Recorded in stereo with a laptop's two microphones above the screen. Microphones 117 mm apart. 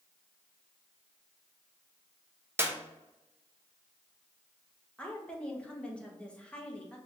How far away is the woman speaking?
About 1.0 m.